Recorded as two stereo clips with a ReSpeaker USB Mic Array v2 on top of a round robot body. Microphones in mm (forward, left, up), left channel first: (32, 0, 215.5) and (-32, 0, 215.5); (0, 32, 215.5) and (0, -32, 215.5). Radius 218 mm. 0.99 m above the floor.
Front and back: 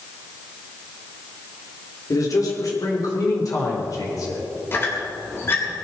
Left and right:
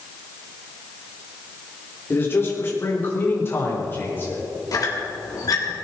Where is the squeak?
55° left, 2.5 m.